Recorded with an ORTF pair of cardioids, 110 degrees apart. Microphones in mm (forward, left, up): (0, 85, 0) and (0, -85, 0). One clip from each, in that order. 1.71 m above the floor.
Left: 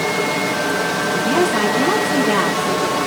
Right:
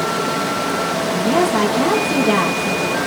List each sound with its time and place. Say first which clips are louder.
0.0 s running water: left 1 dB; straight ahead, 2.5 m
1.1 s a woman speaking: right 1 dB; 20° right, 3 m